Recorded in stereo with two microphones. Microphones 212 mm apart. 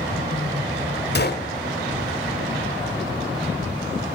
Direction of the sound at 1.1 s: 50° left (ahead or behind).